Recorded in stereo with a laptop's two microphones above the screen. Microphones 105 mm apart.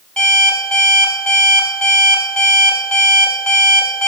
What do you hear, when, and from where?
0.2 s an alarm clock: 10° left (ahead or behind), 4 m